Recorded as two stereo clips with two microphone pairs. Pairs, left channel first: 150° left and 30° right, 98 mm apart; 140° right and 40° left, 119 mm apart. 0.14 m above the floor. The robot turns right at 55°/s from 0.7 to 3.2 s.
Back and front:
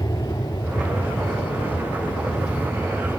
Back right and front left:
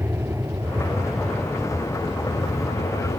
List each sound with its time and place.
0.0 s an aircraft: 110° left; by 3.2 s 130° right